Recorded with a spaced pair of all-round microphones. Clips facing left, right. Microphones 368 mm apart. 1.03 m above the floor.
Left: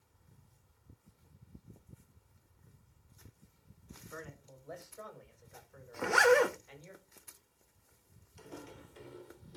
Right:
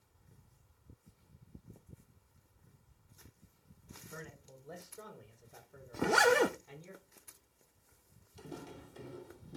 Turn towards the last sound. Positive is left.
turn(degrees=-60)  # may be behind; listen again after turning